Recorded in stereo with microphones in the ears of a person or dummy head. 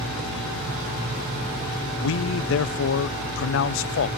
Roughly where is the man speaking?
Left.